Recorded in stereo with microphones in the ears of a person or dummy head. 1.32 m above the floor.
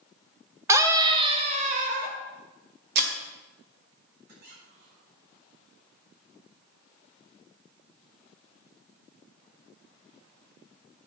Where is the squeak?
60° right (ahead or behind), 3.5 m.